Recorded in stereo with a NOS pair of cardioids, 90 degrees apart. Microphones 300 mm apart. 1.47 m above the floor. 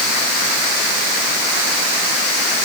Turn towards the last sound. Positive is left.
No sound to turn to.